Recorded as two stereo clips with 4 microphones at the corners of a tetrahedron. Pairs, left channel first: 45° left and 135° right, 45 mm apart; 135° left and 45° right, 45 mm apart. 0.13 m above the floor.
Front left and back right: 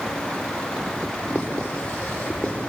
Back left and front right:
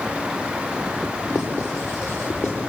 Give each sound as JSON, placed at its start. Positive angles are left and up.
{"t": 1.3, "sound": "writing", "azimuth_deg": 115, "distance_m": 9.0}